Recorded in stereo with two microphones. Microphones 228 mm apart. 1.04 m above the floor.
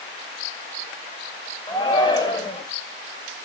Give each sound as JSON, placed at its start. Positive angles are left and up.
{"t": 1.7, "sound": "a shout", "side_deg": 20, "distance_m": 4.5}